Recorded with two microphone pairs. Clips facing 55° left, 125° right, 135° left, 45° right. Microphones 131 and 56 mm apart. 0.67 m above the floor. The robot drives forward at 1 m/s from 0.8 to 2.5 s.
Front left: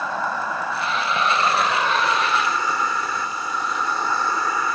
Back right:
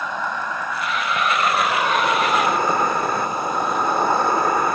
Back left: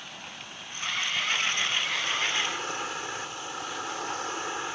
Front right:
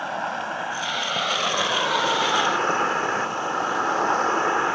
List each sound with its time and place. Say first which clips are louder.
0.0 s an insect: front left 1 dB, front right 16 dB; 25° right; by 4.8 s 85° right